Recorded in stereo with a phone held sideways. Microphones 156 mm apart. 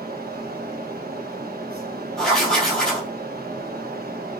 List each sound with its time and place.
0.0 s a fan: 80° right, 1.5 m
2.2 s writing: 5° left (ahead or behind), 3 m